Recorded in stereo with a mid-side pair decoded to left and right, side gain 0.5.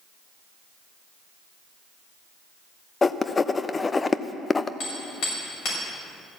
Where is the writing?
25° left, 0.6 m.